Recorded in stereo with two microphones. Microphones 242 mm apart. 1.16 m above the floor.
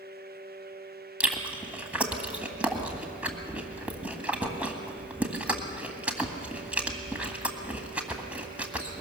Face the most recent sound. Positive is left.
turn(degrees=-5)  # may be behind; listen again after turning